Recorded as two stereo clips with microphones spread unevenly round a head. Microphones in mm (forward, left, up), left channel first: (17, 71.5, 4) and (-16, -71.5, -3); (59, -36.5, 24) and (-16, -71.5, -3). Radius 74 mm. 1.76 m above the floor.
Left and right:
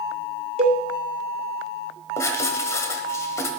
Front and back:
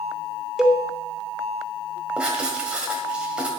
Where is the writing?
90° left, 1.6 m.